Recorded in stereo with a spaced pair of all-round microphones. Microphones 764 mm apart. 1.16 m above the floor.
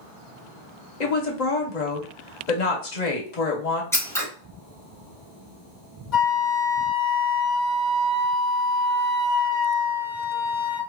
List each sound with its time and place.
1.0 s a woman speaking: 60° left (ahead or behind), 1.0 m
3.9 s scissors: 5° left (ahead or behind), 1.1 m
6.1 s a flute: 65° left (ahead or behind), 1.0 m